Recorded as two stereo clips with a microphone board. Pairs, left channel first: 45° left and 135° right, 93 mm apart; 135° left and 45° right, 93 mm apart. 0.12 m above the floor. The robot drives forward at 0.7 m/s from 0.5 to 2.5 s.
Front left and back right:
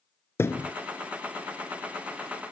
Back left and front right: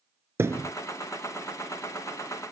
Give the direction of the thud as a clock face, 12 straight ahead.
12 o'clock.